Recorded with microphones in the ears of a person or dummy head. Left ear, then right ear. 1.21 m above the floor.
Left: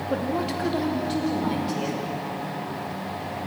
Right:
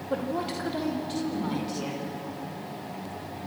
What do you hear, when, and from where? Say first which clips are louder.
0.1 s a woman speaking: left 2 dB; 10° right (ahead or behind), 2.5 m; by 2.1 s centre (ahead or behind), 5.5 m